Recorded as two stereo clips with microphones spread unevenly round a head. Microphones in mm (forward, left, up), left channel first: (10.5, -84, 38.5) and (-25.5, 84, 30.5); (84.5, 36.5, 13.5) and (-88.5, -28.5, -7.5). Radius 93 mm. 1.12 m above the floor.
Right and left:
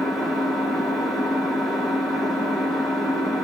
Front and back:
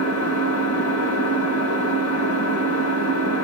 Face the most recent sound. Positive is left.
turn(degrees=15)